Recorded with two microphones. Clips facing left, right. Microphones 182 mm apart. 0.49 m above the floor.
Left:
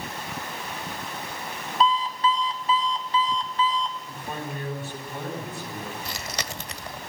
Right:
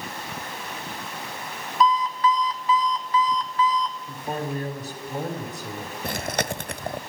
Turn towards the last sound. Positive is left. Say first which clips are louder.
# right 7 dB
turn(degrees=-55)  # may be behind; listen again after turning